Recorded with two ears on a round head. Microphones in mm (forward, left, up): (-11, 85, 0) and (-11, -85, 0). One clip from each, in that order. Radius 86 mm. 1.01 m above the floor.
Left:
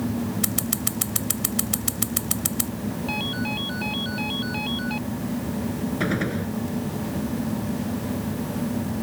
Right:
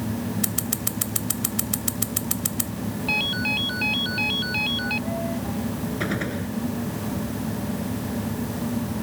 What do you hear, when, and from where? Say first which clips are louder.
0.4 s scissors: left 1 dB; 10° right (ahead or behind)
3.1 s a ringtone: right 6 dB; 50° right (ahead or behind)
6.0 s a gunshot: left 2 dB; 15° right (ahead or behind)